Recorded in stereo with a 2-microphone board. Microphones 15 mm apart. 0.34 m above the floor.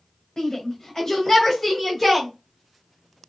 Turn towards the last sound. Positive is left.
turn(degrees=10)  # may be behind; listen again after turning